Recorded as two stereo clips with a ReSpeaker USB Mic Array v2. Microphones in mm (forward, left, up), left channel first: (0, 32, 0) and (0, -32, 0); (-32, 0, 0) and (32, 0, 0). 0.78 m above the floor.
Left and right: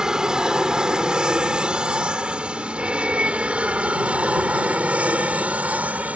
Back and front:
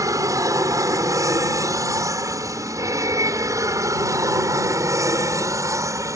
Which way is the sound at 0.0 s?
10° right.